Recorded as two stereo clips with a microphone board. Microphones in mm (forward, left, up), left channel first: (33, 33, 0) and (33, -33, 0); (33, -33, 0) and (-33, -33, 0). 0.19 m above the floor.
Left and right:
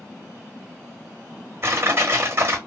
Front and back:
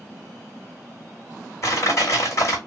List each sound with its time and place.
1.6 s crushing: 45° right, 2 m